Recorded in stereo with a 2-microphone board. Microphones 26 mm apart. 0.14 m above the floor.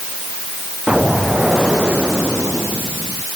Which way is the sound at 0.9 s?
40° right (ahead or behind).